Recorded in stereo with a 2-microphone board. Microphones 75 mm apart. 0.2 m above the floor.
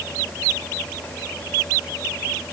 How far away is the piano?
No piano in this recording.